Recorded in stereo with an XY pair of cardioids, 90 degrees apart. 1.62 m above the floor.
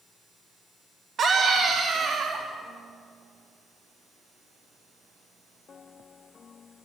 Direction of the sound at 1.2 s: 60° right.